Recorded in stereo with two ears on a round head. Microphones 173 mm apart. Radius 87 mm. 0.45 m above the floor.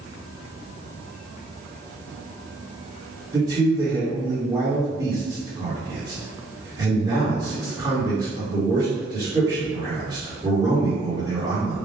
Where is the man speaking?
20° right (ahead or behind), 1.4 m.